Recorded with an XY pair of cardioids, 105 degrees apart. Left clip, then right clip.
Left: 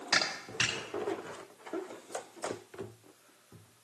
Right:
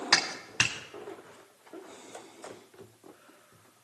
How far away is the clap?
About 3.5 m.